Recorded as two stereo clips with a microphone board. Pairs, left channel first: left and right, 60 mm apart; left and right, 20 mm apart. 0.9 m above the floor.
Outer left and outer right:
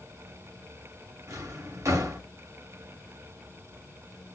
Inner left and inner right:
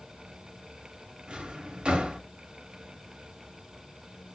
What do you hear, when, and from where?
1.3 s a drawer: 60° right (ahead or behind), 0.9 m